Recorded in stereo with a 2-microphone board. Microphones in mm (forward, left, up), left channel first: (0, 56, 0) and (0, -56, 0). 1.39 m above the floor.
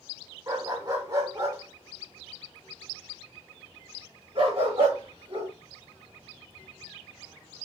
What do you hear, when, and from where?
0.5 s a dog barking: 35° right (ahead or behind), 4 m; by 5.5 s 55° right (ahead or behind), 6.5 m